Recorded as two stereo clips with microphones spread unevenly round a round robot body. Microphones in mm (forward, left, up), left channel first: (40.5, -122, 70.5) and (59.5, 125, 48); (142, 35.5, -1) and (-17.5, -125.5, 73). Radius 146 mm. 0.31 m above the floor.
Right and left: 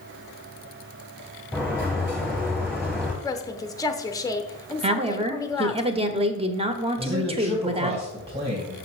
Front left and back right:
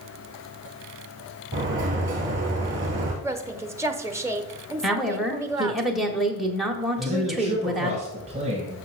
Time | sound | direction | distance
1.5 | a sliding door | 170° left | 1.8 m
3.2 | a woman speaking | 25° right | 0.9 m
4.8 | a woman speaking | 95° left | 1.0 m
7.0 | a man speaking | 150° left | 3 m